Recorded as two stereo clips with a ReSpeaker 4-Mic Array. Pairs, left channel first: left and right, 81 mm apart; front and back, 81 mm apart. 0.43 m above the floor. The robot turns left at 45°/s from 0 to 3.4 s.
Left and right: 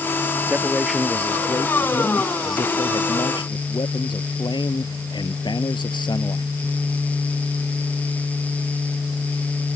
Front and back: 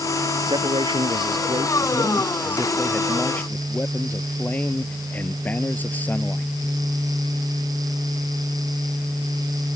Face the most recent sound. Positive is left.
turn(degrees=70)